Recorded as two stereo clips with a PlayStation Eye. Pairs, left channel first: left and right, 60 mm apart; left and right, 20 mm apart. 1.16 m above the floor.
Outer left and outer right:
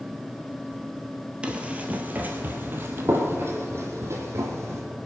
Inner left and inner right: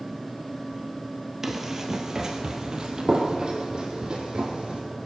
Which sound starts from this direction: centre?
Running footsteps, at 1.4 s.